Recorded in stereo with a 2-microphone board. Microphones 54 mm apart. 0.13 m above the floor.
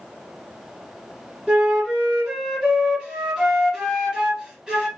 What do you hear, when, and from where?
1.5 s a flute: 15° right (ahead or behind), 1.7 m